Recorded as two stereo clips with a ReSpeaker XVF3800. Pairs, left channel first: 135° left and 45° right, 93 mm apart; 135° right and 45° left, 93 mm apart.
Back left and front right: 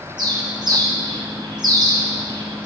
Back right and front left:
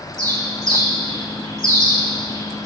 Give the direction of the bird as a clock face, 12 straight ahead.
12 o'clock.